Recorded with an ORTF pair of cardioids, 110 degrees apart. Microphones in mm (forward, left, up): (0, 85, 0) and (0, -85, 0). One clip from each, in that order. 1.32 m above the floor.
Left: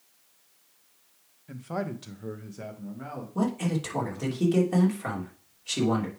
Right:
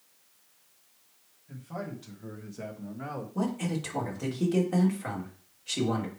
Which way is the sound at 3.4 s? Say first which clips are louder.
Left 4 dB; 15° left.